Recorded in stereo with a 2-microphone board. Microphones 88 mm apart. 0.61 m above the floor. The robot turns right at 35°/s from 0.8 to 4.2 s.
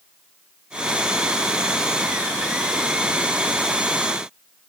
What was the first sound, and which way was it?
Only background noise.